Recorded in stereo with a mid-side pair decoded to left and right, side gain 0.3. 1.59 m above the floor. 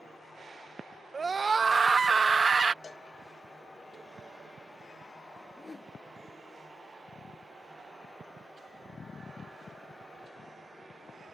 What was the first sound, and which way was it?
A scream, 45° right.